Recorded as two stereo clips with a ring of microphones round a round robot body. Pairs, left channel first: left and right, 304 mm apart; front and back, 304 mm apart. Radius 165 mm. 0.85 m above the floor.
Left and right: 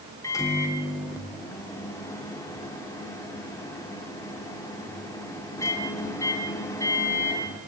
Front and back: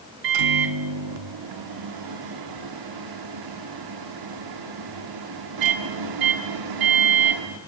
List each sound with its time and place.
0.2 s a microwave: 170° left, 1.5 m